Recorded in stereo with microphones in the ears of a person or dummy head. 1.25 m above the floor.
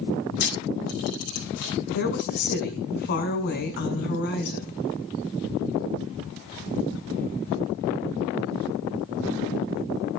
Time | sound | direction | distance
0.4 | a camera shutter | 55° left (ahead or behind) | 7.5 m
1.9 | a woman speaking | 55° left (ahead or behind) | 6 m